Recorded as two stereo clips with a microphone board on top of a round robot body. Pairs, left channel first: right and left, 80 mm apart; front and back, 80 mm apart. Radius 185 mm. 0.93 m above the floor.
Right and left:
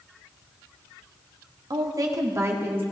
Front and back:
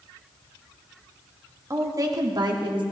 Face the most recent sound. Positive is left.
turn(degrees=155)